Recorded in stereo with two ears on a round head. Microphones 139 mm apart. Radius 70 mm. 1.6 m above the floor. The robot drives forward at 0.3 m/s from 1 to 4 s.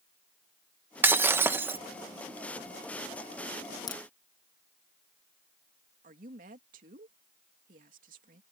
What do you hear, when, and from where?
1.0 s breaking glass: 15° right (ahead or behind)
3.9 s a crack: 25° left (ahead or behind)
6.0 s a woman speaking: 55° right (ahead or behind)